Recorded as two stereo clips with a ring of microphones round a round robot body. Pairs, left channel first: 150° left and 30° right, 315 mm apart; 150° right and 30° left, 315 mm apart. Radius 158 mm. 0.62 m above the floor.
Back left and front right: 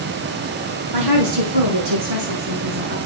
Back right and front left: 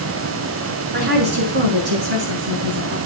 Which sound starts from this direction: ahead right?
A woman speaking, at 0.9 s.